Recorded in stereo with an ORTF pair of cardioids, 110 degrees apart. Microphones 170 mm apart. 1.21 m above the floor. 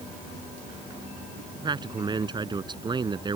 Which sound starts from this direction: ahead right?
A man speaking, at 1.6 s.